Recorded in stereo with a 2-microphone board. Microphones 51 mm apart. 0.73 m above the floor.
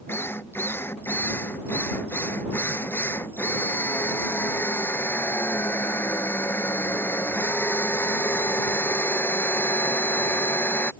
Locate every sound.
0.1 s a drill: 45° left (ahead or behind)